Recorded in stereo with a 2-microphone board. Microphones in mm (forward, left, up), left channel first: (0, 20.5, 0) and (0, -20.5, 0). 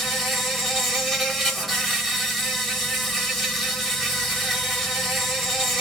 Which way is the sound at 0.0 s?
5° left (ahead or behind).